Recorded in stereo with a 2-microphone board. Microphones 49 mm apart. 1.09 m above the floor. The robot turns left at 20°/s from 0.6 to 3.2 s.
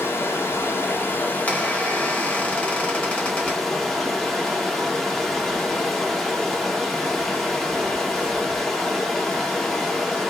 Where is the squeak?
105° left, 0.9 m; by 3.6 s 70° left, 0.9 m.